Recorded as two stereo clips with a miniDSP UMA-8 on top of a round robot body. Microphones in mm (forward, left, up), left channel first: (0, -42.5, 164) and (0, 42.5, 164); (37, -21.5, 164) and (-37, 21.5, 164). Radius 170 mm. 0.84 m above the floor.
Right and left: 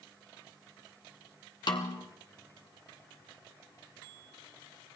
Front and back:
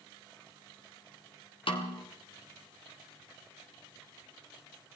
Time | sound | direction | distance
1.7 | a snare drum | 55° right | 1.5 m